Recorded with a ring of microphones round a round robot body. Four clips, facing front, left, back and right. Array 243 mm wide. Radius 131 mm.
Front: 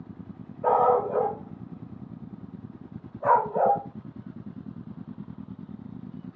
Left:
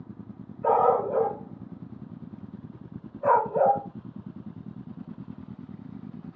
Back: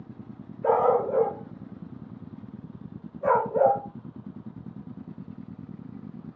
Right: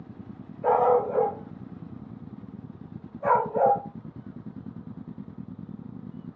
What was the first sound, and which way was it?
A dog barking, 25° right.